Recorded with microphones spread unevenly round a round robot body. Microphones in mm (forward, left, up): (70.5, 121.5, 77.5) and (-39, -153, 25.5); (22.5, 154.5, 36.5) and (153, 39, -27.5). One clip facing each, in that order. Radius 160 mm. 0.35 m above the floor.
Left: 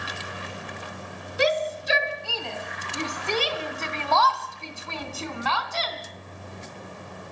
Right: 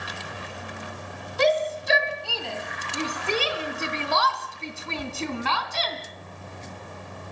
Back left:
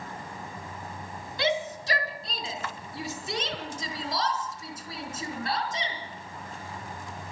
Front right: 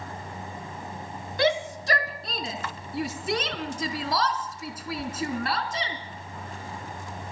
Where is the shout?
15° right, 3.5 m; by 6.0 s 60° right, 3 m.